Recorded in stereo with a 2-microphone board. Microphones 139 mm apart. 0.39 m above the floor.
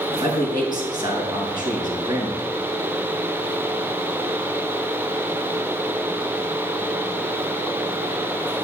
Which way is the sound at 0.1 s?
30° right (ahead or behind).